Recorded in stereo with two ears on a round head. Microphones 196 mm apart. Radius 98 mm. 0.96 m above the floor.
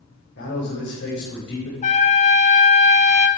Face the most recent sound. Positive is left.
turn(degrees=35)  # may be behind; listen again after turning